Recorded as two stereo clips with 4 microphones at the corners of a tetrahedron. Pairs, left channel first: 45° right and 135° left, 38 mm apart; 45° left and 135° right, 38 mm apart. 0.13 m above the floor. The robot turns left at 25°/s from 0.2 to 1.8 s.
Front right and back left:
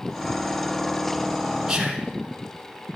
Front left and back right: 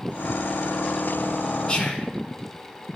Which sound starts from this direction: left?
Whispering, at 1.7 s.